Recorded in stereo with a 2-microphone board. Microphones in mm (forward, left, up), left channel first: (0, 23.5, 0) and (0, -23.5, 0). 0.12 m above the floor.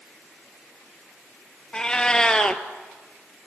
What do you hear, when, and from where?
1.7 s a cat meowing: 15° left (ahead or behind), 1.0 m